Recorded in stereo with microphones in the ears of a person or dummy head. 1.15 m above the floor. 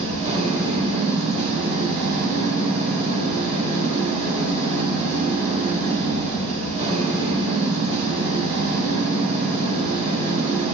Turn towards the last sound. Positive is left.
turn(degrees=-35)  # may be behind; listen again after turning